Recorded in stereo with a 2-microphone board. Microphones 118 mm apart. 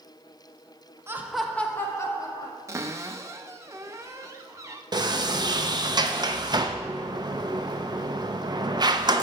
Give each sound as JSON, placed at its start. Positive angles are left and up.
{"t": 1.1, "sound": "laughter", "side_deg": -25, "distance_m": 0.8}
{"t": 2.7, "sound": "a cupboard door", "side_deg": -25, "distance_m": 0.6}
{"t": 4.9, "sound": "a sliding door", "side_deg": -35, "distance_m": 0.6}